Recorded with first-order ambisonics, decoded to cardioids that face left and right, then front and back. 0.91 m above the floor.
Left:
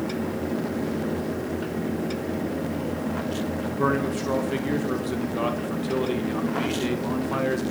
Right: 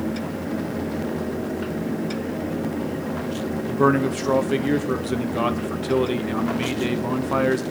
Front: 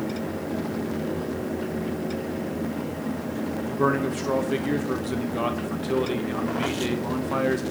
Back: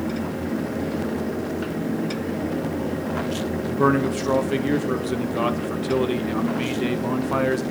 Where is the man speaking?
120° right, 0.7 m.